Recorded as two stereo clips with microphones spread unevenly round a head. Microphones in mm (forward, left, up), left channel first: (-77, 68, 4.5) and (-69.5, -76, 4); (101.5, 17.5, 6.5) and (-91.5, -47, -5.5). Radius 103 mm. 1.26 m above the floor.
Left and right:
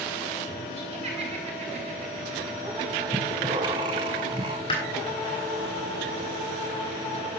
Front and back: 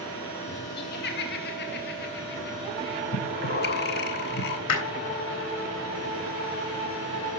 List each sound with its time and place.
0.8 s laughter: 25° right, 2.5 m
3.1 s breathing: 20° right, 1.4 m
4.7 s hammering: 25° left, 3 m